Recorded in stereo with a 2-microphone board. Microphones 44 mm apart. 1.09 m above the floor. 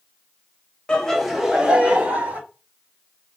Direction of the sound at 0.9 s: 20° left (ahead or behind).